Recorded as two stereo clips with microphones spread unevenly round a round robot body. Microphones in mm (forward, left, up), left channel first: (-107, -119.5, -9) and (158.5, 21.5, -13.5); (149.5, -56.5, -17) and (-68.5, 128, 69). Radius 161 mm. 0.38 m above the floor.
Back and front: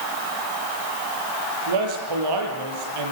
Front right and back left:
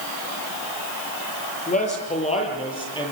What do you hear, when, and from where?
1.7 s a man speaking: 25° left, 8.5 m; by 3.1 s 35° left, 9 m